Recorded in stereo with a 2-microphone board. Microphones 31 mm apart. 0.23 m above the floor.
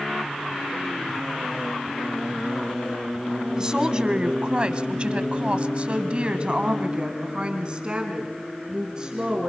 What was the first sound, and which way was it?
A woman speaking, 20° right (ahead or behind).